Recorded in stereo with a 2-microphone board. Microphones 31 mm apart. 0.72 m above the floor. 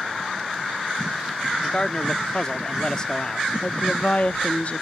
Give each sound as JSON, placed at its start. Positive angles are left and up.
{"t": 1.6, "sound": "a man speaking", "side_deg": 25}
{"t": 3.6, "sound": "a woman speaking", "side_deg": 50}